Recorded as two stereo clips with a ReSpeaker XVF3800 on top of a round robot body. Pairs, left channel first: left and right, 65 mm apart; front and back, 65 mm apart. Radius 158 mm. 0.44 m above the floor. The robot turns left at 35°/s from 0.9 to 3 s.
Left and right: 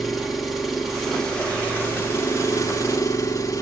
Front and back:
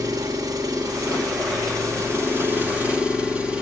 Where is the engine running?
Straight behind, 1.9 m; by 3.6 s 110° left, 1.9 m.